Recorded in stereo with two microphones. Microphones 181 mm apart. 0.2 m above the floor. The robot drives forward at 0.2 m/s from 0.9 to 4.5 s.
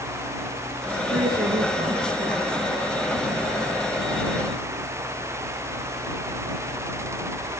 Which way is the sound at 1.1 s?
60° right (ahead or behind).